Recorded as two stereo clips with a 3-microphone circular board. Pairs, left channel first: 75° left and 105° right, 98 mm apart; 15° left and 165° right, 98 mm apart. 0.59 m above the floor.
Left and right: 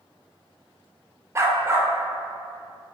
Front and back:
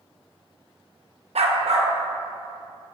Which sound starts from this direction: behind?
A dog barking, at 1.4 s.